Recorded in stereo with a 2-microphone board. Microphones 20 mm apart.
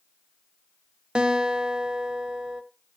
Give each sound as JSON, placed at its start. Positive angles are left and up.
{"t": 1.1, "sound": "a guitar", "side_deg": -55, "distance_m": 0.9}